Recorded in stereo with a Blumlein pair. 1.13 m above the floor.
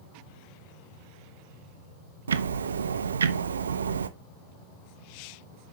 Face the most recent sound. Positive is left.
turn(degrees=-70)